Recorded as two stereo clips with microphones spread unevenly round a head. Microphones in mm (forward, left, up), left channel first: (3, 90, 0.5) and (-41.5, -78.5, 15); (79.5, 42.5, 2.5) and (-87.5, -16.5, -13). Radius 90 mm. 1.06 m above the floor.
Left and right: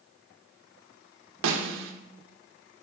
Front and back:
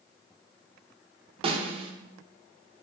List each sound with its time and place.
1.4 s a snare drum: 100° right, 0.6 m